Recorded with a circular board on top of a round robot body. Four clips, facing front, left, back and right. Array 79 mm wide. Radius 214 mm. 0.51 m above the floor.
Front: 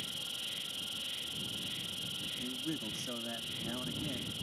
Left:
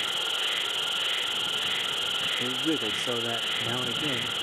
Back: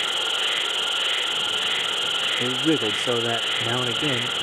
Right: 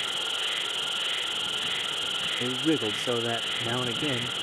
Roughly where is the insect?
Behind.